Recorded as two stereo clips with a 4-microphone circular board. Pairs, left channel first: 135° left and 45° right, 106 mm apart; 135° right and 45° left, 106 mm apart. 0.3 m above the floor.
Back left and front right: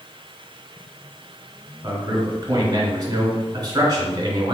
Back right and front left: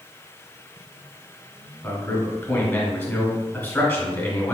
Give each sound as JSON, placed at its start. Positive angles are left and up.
{"t": 1.8, "sound": "a man speaking", "azimuth_deg": -80, "distance_m": 1.3}